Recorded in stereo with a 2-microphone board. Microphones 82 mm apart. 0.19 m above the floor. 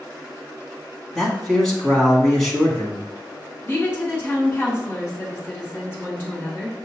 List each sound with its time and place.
1.1 s a man speaking: 5° left (ahead or behind), 1.3 m
3.6 s a woman speaking: 25° left (ahead or behind), 2.0 m